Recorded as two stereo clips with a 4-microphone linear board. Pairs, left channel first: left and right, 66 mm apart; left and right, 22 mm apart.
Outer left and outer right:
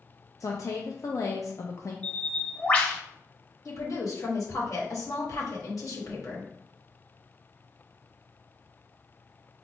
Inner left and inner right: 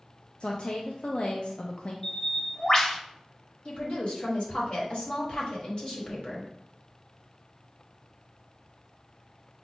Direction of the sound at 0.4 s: 55° left (ahead or behind).